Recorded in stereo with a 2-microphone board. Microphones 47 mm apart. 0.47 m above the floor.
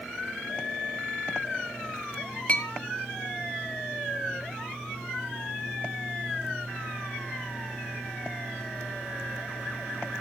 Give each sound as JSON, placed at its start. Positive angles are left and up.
{"t": 2.5, "sound": "a clink", "side_deg": 30, "distance_m": 2.0}